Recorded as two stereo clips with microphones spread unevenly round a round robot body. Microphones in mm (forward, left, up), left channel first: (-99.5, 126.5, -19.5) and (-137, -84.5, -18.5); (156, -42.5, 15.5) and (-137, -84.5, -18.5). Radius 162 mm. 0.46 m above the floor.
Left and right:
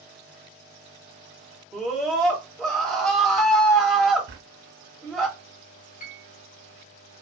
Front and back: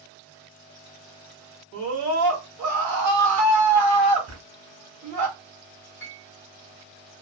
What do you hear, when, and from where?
1.7 s a scream: 170° left, 2 m
4.3 s a drawer: 135° right, 1.3 m
6.0 s a piano: 95° left, 0.6 m